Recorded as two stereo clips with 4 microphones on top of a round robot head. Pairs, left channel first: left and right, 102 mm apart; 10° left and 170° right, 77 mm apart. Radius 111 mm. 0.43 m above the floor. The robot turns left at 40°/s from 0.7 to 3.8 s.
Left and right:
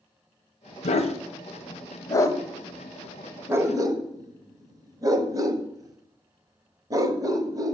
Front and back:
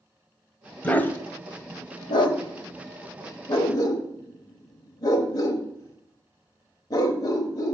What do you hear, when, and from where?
0.8 s a dog barking: 85° left, 1.1 m; by 7.7 s 35° right, 1.1 m